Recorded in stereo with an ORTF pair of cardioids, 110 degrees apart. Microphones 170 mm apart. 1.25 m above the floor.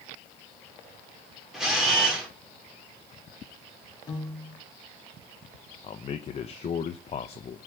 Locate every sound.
1.5 s a camera shutter: straight ahead, 3.5 m
4.1 s a piano: 25° left, 2 m
5.8 s a man speaking: 40° left, 0.8 m